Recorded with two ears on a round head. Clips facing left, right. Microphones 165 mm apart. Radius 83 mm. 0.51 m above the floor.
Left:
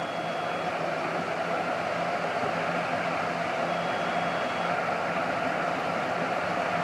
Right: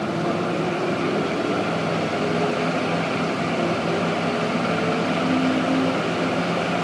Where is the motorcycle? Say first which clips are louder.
Right 8 dB; 80° right.